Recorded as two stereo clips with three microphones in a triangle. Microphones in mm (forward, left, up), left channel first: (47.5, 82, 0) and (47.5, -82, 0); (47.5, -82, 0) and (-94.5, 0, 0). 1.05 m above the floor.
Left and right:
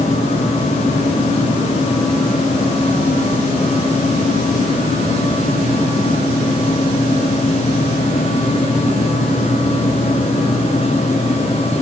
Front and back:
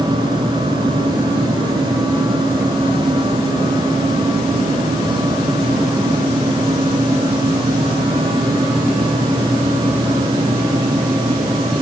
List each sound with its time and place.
Only background noise.